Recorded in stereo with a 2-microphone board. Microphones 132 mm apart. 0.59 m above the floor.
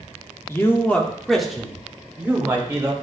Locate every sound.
0.5 s a man speaking: 20° left (ahead or behind), 1.2 m; by 2.9 s 20° right (ahead or behind), 2 m